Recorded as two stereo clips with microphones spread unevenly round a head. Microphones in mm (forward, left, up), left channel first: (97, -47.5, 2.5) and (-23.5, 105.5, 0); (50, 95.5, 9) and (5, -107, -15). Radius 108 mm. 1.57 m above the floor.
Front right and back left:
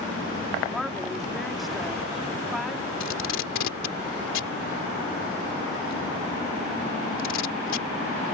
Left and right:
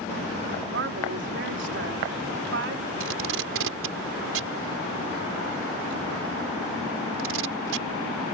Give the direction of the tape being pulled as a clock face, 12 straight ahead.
3 o'clock.